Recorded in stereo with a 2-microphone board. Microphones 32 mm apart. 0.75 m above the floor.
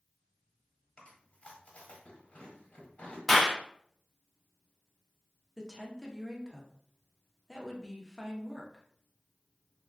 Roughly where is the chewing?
Left.